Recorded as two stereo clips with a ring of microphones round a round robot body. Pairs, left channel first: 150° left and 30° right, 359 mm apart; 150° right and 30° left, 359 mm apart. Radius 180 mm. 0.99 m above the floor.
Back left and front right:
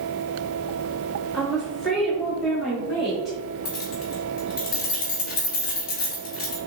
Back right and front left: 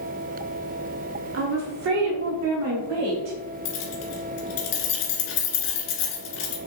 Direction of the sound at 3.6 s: 145° right.